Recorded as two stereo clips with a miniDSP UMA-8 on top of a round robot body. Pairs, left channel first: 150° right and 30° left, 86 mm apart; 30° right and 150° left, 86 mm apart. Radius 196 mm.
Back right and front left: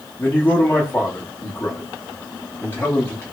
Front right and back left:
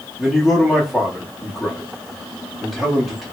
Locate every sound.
0.2 s a man speaking: 115° right, 1.3 m